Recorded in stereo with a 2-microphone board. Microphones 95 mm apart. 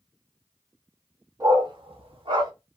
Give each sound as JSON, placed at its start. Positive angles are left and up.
{"t": 1.4, "sound": "a dog barking", "side_deg": -35, "distance_m": 1.1}